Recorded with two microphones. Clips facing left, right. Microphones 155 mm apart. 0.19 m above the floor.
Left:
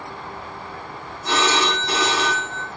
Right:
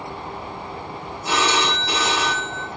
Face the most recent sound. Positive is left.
turn(degrees=-10)  # may be behind; listen again after turning